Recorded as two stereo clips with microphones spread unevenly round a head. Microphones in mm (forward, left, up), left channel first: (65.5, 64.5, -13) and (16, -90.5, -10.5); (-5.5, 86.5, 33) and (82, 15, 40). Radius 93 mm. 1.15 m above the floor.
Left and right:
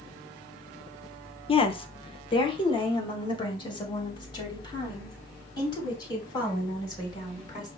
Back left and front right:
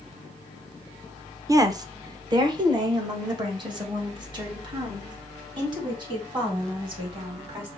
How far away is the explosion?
No explosion in this recording.